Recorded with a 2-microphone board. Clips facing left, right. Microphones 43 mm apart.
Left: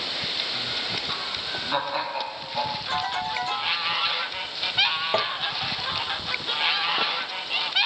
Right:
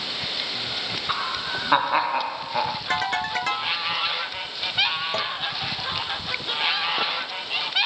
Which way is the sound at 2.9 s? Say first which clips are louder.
Right 3 dB; 55° right (ahead or behind).